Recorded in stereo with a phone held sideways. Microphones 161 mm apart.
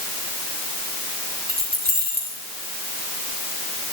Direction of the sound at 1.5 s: 85° right.